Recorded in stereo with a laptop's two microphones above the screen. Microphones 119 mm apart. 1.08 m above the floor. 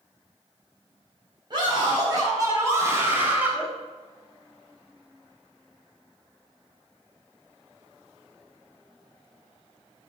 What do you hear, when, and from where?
1.5 s a scream: 40° right (ahead or behind), 4.5 m; by 3.7 s 10° right (ahead or behind), 4 m